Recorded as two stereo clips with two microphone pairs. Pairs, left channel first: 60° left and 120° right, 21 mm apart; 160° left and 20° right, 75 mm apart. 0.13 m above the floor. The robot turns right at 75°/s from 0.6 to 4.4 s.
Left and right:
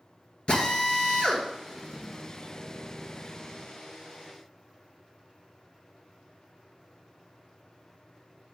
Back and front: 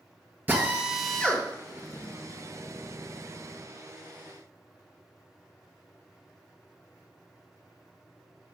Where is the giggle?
No giggle in this recording.